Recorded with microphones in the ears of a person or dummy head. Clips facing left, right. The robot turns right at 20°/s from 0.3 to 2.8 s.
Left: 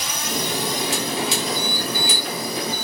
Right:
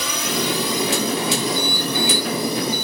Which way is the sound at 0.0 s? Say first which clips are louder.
Right 4 dB; 55° right (ahead or behind).